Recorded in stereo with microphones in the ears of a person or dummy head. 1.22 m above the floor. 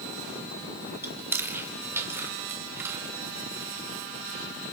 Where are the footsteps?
I don't hear footsteps.